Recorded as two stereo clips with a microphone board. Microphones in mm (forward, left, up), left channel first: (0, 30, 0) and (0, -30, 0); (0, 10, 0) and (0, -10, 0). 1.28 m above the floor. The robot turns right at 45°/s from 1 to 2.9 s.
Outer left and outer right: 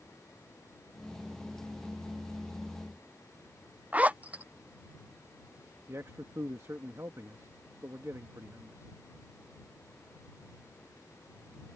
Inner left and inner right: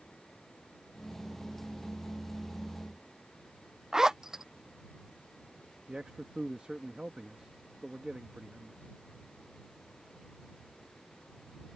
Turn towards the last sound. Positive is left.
turn(degrees=-55)  # may be behind; listen again after turning